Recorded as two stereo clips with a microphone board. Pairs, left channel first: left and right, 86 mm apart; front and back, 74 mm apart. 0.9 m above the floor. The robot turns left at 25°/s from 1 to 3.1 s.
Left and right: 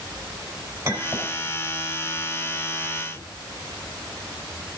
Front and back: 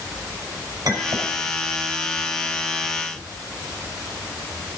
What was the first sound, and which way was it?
A clink, 140° right.